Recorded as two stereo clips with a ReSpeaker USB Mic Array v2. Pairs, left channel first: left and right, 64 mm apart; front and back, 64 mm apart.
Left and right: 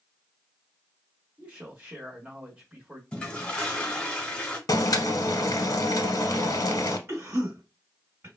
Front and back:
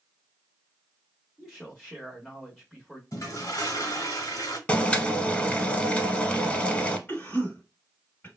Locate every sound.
1.4 s a man speaking: 65° right, 1.0 m
3.1 s a toilet flushing: 15° left, 1.0 m
4.7 s boiling: 70° left, 0.5 m
7.1 s a cough: 55° right, 1.8 m